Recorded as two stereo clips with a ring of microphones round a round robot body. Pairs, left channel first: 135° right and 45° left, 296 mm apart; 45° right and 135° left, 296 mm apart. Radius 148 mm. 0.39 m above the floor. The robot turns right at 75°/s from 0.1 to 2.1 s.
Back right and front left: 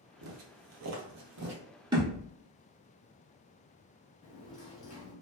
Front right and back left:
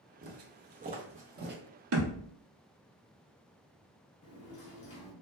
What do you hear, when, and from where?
0.2 s footsteps: 75° left, 0.8 m; by 1.6 s 85° left, 0.9 m
1.9 s a thud: 120° left, 0.9 m; by 2.4 s 135° left, 0.9 m
4.2 s a sliding door: 80° right, 1.0 m